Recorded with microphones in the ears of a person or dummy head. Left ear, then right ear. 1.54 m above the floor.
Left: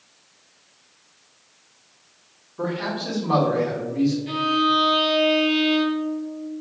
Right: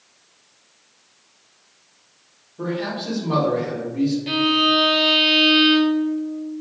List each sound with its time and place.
2.6 s a man speaking: 40° left (ahead or behind), 1.3 m
4.3 s a violin: 30° right (ahead or behind), 0.6 m